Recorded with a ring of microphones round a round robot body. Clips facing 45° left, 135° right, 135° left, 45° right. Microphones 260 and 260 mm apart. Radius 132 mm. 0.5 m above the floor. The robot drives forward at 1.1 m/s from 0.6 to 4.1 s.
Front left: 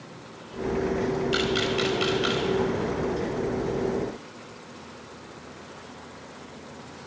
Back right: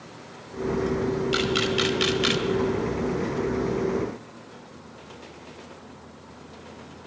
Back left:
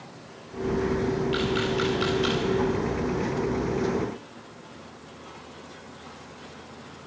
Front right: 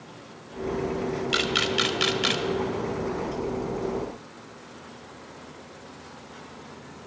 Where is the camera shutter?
55° right, 1.9 m; by 2.5 s 100° right, 1.6 m.